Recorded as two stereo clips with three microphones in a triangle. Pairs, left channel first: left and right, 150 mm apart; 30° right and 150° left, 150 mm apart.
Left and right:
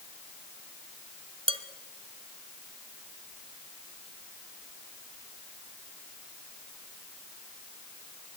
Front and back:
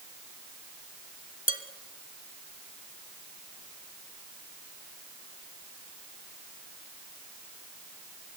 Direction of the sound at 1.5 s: 45° right.